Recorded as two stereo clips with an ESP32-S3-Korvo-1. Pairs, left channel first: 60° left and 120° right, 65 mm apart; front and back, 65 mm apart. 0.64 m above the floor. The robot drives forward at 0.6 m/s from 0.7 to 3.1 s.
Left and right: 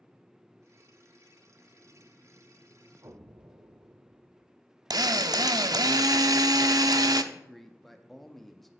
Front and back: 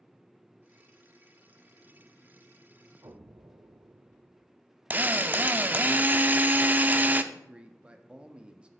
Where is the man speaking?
145° left, 0.7 m.